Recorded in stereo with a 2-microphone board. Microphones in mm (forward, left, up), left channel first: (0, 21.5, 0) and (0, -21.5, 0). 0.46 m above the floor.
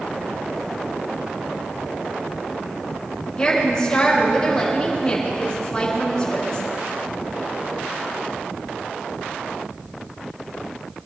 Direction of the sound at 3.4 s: 20° left (ahead or behind).